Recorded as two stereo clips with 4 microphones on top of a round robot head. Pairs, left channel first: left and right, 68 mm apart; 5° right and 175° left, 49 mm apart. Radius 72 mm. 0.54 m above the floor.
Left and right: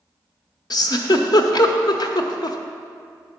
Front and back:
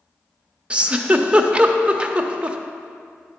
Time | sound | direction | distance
0.7 | a giggle | 110° left | 0.8 m